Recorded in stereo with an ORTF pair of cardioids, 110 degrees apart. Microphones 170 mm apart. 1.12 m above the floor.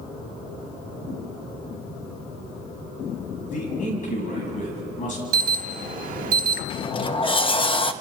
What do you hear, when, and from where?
3.5 s a man speaking: 50° left, 10 m
5.3 s an alarm: 60° right, 2 m
6.7 s a sliding door: 30° left, 1.0 m